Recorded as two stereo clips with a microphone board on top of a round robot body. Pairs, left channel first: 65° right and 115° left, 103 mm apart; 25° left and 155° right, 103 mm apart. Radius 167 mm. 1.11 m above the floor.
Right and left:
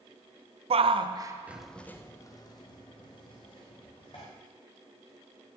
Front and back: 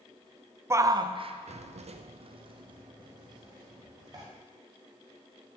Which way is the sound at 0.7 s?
135° left.